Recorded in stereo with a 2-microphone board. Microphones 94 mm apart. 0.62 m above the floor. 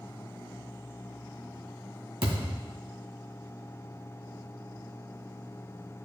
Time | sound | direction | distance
2.2 | a thud | 80° right | 2.5 m